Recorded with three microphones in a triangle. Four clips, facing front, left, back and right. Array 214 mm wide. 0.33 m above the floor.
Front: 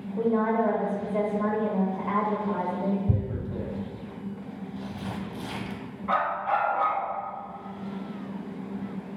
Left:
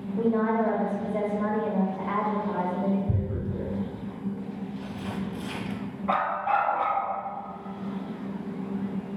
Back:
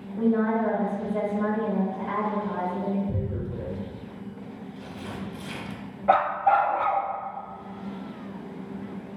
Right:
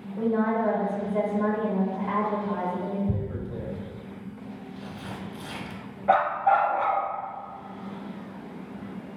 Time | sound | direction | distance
0.2 | a woman speaking | 5° left | 0.9 m
3.1 | tearing paper | straight ahead | 0.6 m
6.1 | a dog barking | 155° right | 0.7 m